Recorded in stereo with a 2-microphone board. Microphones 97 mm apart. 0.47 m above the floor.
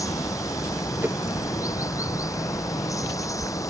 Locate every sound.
0.0 s running water: 35° left (ahead or behind)
1.0 s a whoosh: 20° right (ahead or behind)